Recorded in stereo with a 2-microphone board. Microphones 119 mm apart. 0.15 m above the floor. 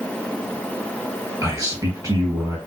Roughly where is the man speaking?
Right.